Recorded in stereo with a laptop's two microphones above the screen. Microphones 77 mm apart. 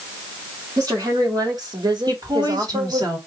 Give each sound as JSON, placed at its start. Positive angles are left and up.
{"t": 0.8, "sound": "a woman speaking", "side_deg": -55, "distance_m": 2.5}
{"t": 2.1, "sound": "a woman speaking", "side_deg": -60, "distance_m": 3.0}